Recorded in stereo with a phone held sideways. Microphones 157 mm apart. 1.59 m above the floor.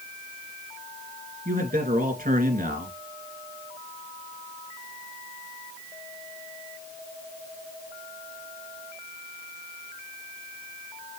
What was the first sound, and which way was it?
A man speaking, 70° right (ahead or behind).